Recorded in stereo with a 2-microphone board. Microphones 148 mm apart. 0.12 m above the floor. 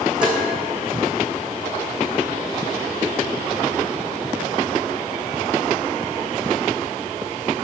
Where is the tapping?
30° right (ahead or behind), 3.5 m.